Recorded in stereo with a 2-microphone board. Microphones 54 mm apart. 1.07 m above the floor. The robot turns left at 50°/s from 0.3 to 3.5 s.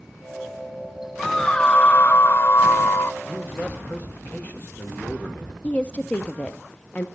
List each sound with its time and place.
1.2 s a scream: 175° left, 0.6 m; by 3.1 s 80° left, 0.6 m
3.2 s a man speaking: 15° left (ahead or behind), 2 m; by 5.5 s 25° left (ahead or behind), 2 m
5.6 s a woman speaking: 25° left (ahead or behind), 0.6 m